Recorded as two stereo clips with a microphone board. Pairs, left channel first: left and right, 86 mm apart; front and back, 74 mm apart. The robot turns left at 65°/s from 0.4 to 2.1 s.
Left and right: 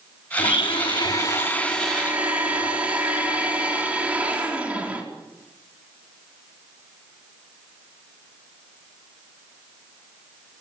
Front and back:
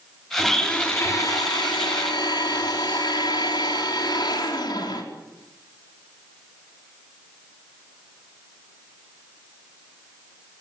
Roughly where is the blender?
Left.